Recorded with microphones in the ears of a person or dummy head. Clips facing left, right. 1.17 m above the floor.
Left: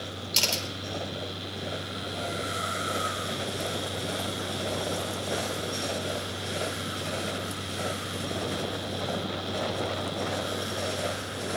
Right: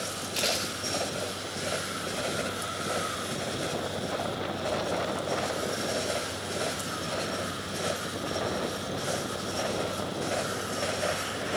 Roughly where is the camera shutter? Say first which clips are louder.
Right 3 dB; left.